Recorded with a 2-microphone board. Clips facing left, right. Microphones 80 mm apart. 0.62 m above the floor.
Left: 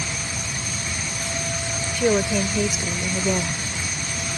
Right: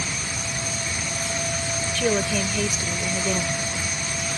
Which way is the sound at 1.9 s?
15° left (ahead or behind).